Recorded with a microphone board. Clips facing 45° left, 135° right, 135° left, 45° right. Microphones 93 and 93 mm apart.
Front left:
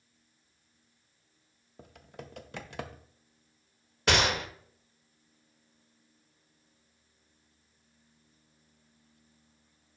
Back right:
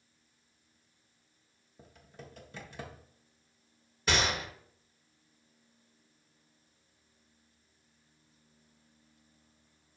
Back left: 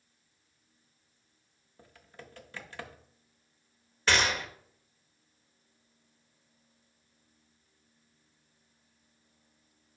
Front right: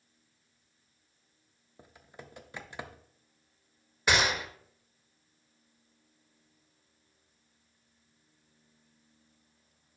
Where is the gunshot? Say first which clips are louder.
Front left 4 dB, even; 30° left, 0.7 m.